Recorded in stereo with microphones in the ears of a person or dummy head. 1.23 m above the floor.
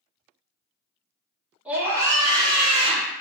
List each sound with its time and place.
1.6 s a scream: 10° right (ahead or behind), 1.6 m; by 3.2 s 35° right (ahead or behind), 2 m